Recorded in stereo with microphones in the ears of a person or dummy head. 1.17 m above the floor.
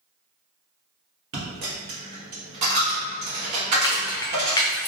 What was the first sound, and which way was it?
A dropped coin, 45° right (ahead or behind).